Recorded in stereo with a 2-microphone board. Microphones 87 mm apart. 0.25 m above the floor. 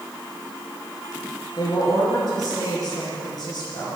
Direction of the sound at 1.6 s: 45° left (ahead or behind).